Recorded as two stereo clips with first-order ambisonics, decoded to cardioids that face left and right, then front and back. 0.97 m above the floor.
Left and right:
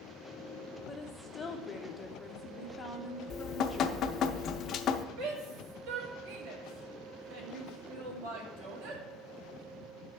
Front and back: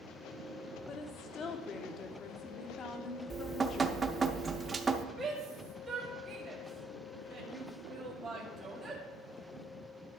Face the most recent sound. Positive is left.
turn(degrees=-100)